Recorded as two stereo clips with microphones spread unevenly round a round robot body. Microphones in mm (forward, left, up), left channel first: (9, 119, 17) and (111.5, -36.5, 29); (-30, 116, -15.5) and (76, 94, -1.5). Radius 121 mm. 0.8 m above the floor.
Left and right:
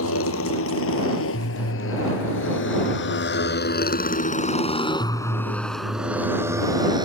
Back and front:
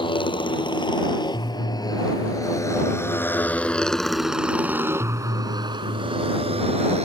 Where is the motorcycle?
125° left; by 7.1 s 10° left.